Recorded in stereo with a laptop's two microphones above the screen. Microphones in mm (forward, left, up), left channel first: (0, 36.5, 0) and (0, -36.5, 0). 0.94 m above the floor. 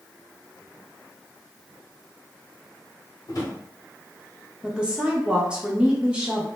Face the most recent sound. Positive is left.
turn(degrees=-15)  # may be behind; listen again after turning